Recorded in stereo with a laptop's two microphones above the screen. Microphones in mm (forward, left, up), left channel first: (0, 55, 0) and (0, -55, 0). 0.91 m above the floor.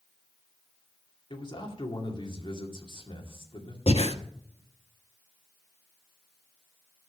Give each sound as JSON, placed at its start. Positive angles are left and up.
{"t": 1.3, "sound": "a man speaking", "side_deg": 45, "distance_m": 2.0}
{"t": 3.9, "sound": "breathing", "side_deg": 70, "distance_m": 1.1}